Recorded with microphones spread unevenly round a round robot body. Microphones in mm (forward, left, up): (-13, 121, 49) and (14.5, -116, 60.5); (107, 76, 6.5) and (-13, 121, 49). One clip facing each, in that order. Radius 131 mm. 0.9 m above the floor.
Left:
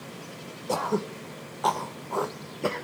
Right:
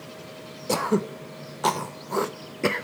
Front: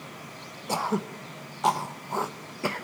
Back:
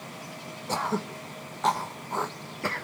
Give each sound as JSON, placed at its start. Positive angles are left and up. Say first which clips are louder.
{"t": 0.7, "sound": "throat clearing", "louder": "right 4 dB, front 1 dB", "azimuth_deg": -55, "distance_m": 0.8}